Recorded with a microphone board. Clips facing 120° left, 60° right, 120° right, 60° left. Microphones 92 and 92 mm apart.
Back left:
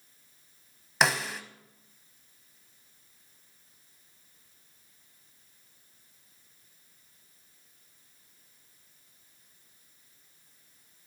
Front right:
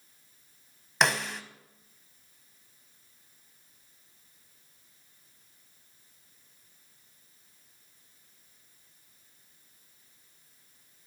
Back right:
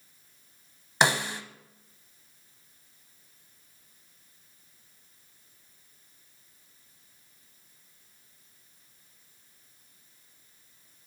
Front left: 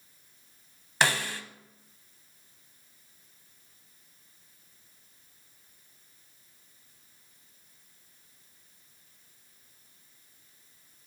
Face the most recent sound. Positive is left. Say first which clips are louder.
# even, back right 2 dB
turn(degrees=-155)